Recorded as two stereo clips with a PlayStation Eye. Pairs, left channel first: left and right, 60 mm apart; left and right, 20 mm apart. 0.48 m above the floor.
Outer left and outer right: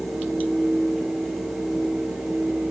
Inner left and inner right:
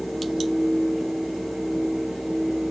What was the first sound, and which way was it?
Only background noise.